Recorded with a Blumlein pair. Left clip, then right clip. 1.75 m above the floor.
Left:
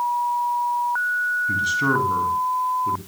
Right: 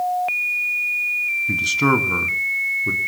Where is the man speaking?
20° right, 2.5 m.